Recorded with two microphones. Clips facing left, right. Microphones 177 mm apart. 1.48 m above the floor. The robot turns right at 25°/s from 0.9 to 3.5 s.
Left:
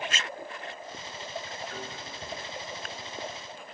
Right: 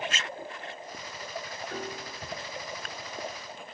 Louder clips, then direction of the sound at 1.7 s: Right 3 dB; 70° right (ahead or behind).